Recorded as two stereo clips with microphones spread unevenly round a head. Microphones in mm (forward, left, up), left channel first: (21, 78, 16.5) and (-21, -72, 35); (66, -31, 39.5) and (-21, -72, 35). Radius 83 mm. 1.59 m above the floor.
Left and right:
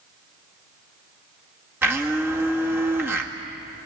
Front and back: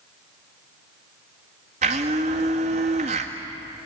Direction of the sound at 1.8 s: Straight behind.